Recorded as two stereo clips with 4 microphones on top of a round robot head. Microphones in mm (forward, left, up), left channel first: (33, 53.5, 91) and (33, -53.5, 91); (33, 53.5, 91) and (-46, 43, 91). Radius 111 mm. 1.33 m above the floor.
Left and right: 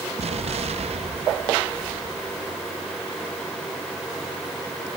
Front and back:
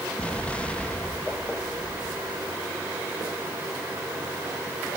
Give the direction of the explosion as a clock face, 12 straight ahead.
2 o'clock.